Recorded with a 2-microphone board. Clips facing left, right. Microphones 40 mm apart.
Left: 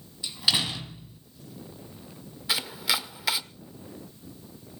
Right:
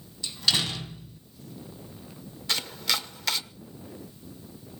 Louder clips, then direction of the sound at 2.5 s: Left 1 dB; 10° left (ahead or behind).